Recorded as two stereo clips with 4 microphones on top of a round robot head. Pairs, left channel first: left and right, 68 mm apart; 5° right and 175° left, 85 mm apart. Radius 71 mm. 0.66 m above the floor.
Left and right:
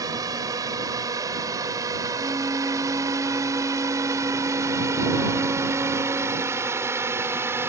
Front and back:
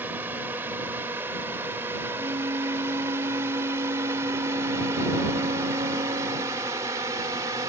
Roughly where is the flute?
Behind right.